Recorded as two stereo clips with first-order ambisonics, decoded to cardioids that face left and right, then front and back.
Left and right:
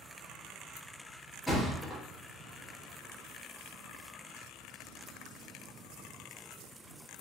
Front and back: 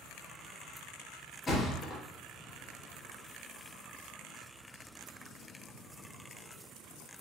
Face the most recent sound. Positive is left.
turn(degrees=15)